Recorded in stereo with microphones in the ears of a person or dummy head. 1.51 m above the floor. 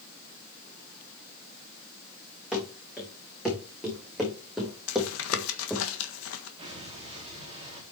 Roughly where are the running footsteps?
Centre.